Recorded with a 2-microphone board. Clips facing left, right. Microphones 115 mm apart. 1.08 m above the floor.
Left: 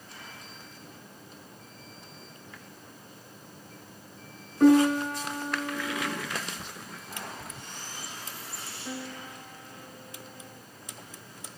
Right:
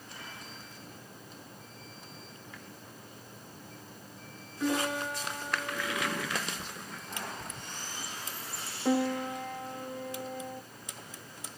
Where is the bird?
Centre (ahead or behind), 0.8 m.